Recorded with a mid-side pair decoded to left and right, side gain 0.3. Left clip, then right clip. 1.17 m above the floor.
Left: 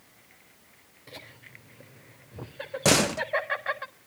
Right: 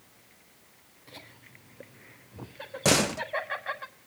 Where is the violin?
No violin in this recording.